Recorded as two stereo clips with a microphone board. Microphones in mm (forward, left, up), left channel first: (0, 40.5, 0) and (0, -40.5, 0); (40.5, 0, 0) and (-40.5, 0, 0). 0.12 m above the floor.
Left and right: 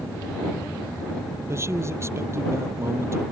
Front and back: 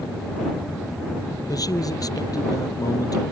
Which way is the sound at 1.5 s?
35° right.